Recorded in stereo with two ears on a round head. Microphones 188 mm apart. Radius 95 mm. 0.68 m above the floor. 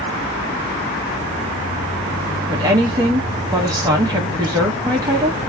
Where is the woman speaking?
15° right (ahead or behind), 1.1 m.